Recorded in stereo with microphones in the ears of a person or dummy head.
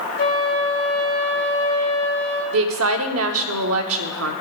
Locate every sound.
0.2 s a flute: 50° left (ahead or behind), 2 m
2.5 s a woman speaking: 75° right (ahead or behind), 1.1 m